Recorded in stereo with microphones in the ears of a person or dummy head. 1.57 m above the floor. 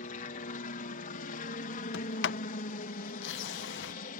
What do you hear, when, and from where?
0.0 s a helicopter: 50° left (ahead or behind)
1.9 s a sliding door: 70° left (ahead or behind)